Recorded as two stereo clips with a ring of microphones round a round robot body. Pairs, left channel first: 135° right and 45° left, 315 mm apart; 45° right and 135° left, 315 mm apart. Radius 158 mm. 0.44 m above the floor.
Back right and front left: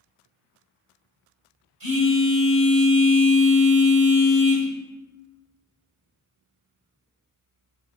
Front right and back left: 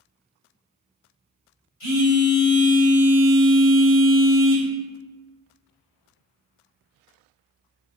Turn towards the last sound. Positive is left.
turn(degrees=-10)